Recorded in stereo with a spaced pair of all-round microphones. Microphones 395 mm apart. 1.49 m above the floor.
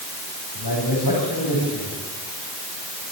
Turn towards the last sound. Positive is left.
turn(degrees=70)  # may be behind; listen again after turning